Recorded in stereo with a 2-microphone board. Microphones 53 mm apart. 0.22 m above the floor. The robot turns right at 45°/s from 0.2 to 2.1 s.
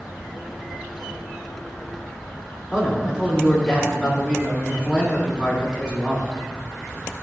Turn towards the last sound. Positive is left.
turn(degrees=-10)  # may be behind; listen again after turning